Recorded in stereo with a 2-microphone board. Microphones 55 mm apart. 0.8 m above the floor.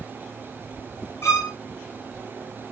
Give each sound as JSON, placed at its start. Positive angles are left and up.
{"t": 1.2, "sound": "a violin", "side_deg": 55, "distance_m": 2.0}